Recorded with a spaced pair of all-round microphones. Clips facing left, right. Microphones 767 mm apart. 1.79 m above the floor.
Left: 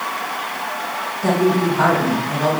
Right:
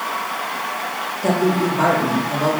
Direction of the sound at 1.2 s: 45° left (ahead or behind).